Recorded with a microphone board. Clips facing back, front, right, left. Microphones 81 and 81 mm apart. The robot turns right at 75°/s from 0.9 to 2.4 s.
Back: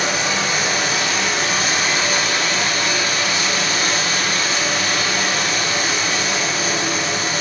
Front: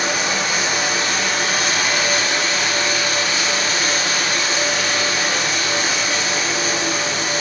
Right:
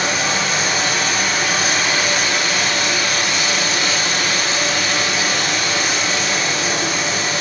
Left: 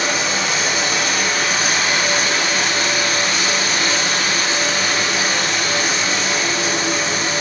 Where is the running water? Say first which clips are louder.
Even, right 1 dB; 50° right, 1.6 m; by 7.4 s 60° left, 1.6 m.